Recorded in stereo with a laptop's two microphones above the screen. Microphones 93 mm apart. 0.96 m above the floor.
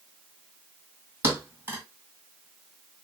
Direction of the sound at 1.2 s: 25° right (ahead or behind).